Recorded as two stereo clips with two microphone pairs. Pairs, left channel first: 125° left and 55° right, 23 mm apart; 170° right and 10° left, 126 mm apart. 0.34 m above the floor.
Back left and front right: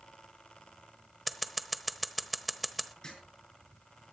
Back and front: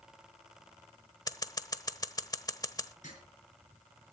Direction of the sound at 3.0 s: 175° left.